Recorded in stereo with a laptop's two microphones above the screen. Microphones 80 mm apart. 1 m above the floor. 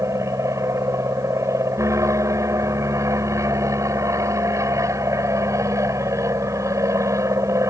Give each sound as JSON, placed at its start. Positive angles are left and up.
{"t": 0.0, "sound": "an aircraft", "side_deg": -40}